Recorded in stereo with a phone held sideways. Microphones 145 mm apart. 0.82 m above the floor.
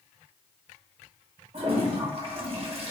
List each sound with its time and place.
1.5 s a toilet flushing: 45° right (ahead or behind), 0.9 m